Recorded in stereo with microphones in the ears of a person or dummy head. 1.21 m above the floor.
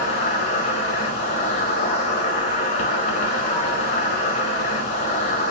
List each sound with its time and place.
0.0 s an insect: 45° left (ahead or behind), 1.1 m